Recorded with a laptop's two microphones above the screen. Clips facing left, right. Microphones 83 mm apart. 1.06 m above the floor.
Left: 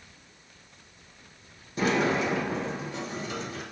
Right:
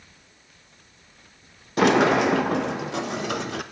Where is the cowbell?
No cowbell in this recording.